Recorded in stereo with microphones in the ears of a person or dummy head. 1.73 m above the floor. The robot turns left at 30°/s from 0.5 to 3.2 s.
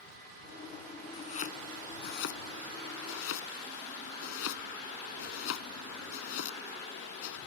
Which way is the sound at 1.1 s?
35° left (ahead or behind).